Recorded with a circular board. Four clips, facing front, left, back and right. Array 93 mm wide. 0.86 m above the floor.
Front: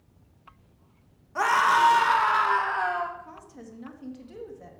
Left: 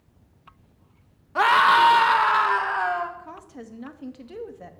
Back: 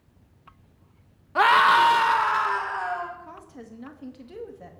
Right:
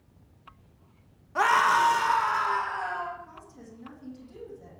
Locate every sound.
1.4 s a scream: 155° left, 1.0 m; by 3.1 s 65° left, 1.5 m
3.2 s a woman speaking: 105° left, 1.5 m